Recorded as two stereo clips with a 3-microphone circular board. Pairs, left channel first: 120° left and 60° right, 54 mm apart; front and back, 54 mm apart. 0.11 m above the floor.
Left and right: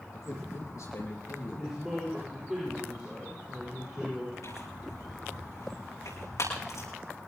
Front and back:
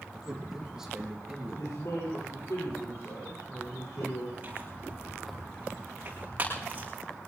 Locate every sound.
0.1 s a man speaking: 105° left, 5.5 m
1.6 s a man speaking: 20° left, 10 m
4.4 s tearing paper: 125° left, 8 m